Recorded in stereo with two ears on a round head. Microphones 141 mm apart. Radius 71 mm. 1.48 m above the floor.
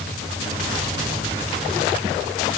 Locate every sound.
Only background noise.